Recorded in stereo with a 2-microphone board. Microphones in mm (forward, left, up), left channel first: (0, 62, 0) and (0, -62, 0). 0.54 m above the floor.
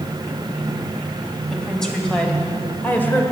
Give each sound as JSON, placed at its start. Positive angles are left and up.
{"t": 1.5, "sound": "a woman speaking", "side_deg": 5, "distance_m": 3.0}